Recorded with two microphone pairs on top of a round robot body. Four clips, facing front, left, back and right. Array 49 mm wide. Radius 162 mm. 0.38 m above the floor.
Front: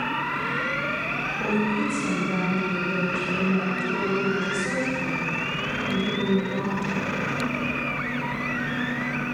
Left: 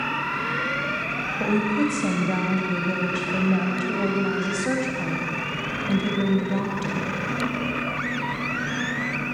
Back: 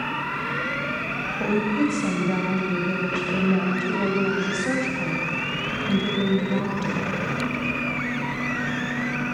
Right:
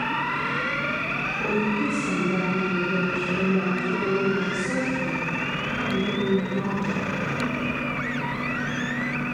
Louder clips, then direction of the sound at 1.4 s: Left 3 dB, back 3 dB; 115° left.